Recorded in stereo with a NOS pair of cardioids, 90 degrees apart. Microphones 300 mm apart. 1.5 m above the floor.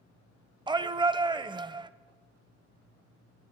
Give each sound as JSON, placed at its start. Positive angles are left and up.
{"t": 0.7, "sound": "a shout", "azimuth_deg": -15, "distance_m": 0.7}